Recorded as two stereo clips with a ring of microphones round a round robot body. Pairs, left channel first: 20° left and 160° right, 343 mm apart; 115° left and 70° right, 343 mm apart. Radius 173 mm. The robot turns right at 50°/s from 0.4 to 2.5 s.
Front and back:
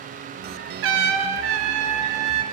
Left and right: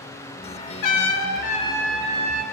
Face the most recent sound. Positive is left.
turn(degrees=-130)